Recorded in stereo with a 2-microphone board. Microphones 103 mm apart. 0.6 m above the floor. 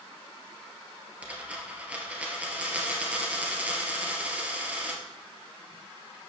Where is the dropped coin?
15° right (ahead or behind), 2.5 m.